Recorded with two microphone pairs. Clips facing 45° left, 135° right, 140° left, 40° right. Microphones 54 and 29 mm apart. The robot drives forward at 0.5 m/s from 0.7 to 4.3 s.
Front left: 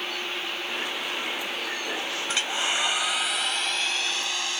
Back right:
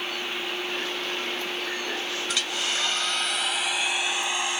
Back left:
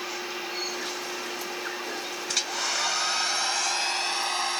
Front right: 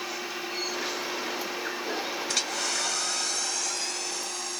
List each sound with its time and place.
2.3 s a hair dryer: 45° left; by 4.6 s 155° left